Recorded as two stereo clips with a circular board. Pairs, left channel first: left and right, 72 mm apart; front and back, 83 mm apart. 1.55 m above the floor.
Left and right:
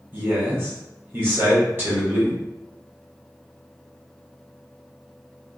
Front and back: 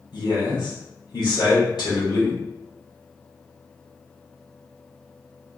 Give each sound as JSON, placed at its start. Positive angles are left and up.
{"t": 0.1, "sound": "a man speaking", "azimuth_deg": -30, "distance_m": 1.7}